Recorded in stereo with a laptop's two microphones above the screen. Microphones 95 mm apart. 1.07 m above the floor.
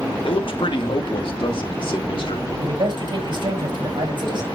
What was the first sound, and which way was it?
A man speaking, 65° left (ahead or behind).